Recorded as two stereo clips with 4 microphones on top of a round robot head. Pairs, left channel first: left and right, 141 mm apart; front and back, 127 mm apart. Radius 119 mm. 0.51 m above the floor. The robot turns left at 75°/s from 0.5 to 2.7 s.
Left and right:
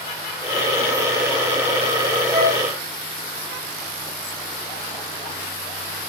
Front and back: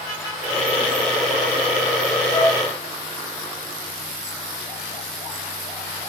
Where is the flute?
30° right, 2 m; by 2.6 s 50° right, 2 m.